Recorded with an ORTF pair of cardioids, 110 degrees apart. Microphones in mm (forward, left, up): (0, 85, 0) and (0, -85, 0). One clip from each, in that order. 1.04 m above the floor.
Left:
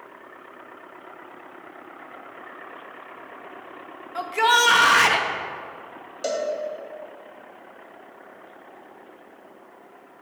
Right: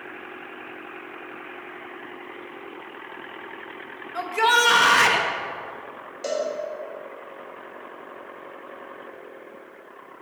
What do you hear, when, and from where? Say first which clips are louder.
4.2 s a shout: left 1 dB; 5° left, 0.8 m
6.2 s a cowbell: even; 25° left, 1.5 m